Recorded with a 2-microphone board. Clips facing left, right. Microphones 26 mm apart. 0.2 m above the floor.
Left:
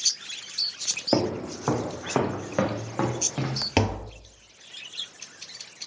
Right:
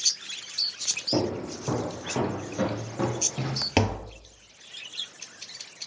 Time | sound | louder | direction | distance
1.1 | footsteps | left 4 dB | 85° left | 2.5 m
3.8 | tapping | even | 5° left (ahead or behind) | 1.0 m